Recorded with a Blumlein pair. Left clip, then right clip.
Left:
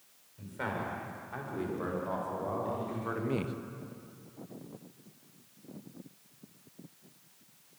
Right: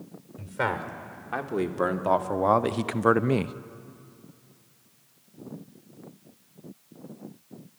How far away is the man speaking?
About 3 m.